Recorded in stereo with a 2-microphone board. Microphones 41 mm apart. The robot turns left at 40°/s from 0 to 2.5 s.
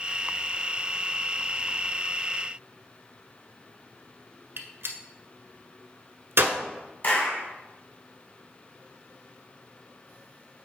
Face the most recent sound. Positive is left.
turn(degrees=45)  # may be behind; listen again after turning